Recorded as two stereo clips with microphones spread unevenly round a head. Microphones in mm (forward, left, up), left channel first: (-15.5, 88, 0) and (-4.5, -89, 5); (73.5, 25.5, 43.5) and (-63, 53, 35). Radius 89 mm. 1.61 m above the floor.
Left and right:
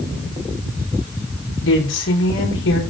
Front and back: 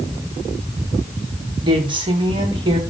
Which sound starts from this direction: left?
A woman speaking, at 1.6 s.